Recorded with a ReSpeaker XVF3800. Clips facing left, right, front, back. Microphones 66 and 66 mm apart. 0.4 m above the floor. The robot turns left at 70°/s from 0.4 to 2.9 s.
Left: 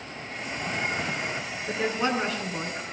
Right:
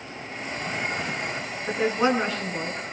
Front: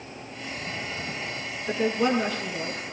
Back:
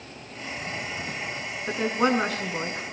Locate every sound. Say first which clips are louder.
1.7 s a woman speaking: right 4 dB, even; 130° right, 3.5 m; by 2.8 s 145° left, 3.5 m